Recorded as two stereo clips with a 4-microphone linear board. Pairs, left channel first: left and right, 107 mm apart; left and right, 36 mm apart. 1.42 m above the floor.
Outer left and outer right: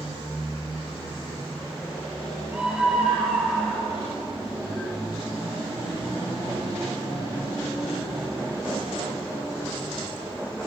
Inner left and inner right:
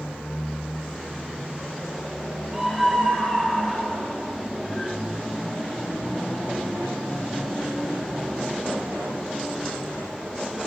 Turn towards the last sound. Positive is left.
turn(degrees=10)  # may be behind; listen again after turning